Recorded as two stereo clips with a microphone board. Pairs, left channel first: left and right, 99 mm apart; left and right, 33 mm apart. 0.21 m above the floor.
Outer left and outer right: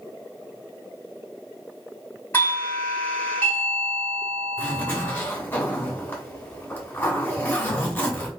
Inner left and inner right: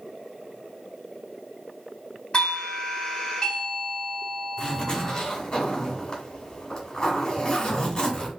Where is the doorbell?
25° left (ahead or behind), 1.7 m.